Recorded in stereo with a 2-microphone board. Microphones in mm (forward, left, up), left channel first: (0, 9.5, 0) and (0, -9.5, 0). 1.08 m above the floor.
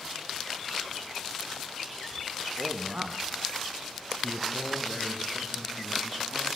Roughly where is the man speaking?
Right.